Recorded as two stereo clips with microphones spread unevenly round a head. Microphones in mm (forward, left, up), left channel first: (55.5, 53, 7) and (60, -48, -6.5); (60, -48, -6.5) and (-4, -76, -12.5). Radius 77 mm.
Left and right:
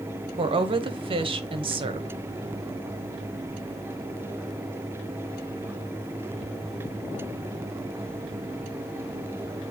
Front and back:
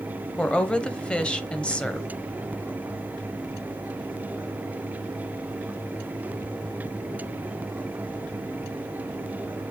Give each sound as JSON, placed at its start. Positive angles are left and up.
{"t": 0.4, "sound": "a woman speaking", "azimuth_deg": -55, "distance_m": 1.1}